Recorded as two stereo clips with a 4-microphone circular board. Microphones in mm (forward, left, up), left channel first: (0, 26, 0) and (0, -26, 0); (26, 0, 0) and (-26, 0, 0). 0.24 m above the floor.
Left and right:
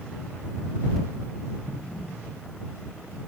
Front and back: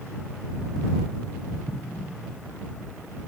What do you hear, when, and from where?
1.7 s an explosion: straight ahead